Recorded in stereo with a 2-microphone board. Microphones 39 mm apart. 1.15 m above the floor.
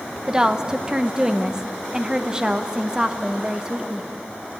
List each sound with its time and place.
0.3 s a woman speaking: 20° right (ahead or behind), 1.1 m